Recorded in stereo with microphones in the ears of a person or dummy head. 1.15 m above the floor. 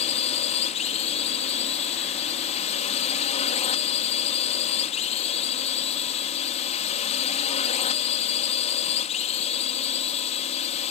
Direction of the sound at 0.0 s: 35° left (ahead or behind).